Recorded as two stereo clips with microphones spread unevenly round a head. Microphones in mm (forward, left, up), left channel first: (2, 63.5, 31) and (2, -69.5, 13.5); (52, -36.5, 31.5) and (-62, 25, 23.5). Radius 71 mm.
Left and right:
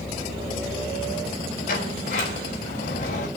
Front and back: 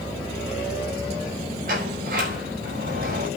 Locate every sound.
1.7 s a sliding door: 130° left, 4.5 m